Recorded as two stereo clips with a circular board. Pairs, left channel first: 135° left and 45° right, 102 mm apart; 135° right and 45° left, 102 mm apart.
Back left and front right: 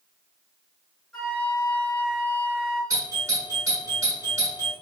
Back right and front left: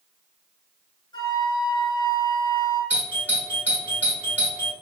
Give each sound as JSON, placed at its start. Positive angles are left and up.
{"t": 1.1, "sound": "a flute", "azimuth_deg": -145, "distance_m": 1.6}
{"t": 2.9, "sound": "a doorbell", "azimuth_deg": -75, "distance_m": 1.7}